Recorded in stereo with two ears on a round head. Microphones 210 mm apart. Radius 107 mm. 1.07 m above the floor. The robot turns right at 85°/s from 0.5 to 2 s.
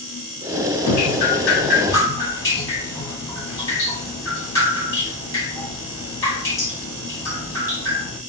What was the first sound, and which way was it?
Dripping, 70° left.